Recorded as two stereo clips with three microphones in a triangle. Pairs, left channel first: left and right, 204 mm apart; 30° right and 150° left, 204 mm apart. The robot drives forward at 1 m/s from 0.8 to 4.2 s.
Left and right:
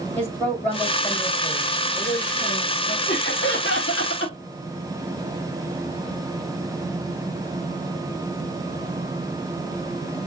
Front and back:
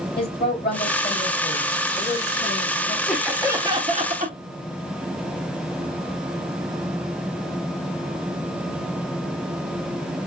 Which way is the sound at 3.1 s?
50° left.